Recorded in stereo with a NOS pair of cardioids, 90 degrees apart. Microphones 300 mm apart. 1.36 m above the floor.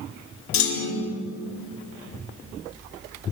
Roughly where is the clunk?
Left.